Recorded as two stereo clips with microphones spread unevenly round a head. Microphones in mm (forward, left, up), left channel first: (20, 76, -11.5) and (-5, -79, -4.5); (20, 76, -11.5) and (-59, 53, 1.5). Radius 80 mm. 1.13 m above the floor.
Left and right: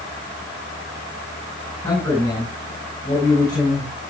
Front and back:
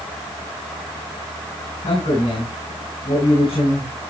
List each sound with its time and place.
1.8 s a man speaking: 15° left, 6 m